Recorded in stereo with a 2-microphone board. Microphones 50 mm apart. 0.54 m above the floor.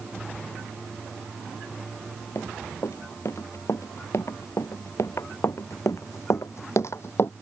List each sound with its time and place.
2.4 s running footsteps: 70° left (ahead or behind); by 7.3 s 50° left (ahead or behind)